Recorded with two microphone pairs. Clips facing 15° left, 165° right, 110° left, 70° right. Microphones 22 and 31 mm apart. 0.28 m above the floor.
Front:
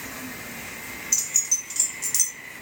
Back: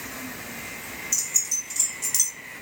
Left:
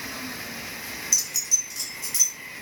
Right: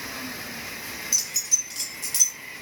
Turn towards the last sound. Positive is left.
turn(degrees=-70)